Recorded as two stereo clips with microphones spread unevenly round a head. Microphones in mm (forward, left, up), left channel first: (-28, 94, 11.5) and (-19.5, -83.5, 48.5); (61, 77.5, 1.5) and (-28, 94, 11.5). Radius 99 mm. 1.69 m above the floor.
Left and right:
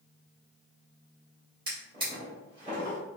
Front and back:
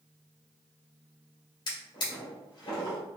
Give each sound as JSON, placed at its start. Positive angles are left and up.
{"t": 1.7, "sound": "a drawer", "azimuth_deg": -40, "distance_m": 1.8}